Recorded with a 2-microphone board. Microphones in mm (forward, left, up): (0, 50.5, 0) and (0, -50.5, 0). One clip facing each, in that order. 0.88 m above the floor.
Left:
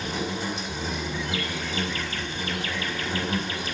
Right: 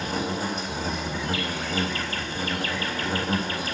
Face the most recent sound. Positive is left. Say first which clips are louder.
# right 2 dB
turn(degrees=-45)  # may be behind; listen again after turning